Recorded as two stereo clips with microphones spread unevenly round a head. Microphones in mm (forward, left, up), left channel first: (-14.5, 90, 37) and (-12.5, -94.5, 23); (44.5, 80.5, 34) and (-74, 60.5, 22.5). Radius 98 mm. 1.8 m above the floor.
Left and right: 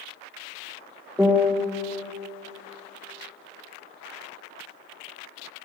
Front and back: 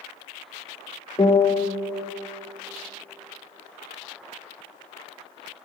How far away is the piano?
About 0.8 m.